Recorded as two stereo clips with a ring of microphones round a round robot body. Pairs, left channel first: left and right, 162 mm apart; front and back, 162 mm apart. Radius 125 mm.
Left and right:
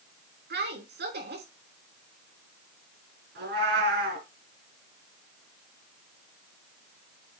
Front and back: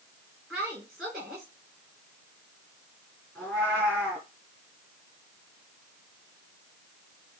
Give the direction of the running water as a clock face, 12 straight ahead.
I don't hear running water.